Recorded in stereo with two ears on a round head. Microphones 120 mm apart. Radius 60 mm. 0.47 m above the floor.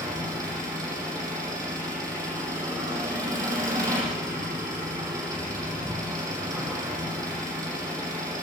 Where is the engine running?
25° right (ahead or behind), 7.5 m.